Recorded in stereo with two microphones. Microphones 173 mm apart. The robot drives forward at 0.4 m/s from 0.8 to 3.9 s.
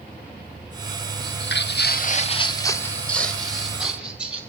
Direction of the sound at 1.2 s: 70° left (ahead or behind).